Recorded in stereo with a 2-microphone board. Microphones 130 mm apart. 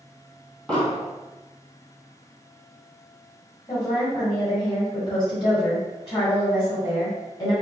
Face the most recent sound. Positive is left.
turn(degrees=40)  # may be behind; listen again after turning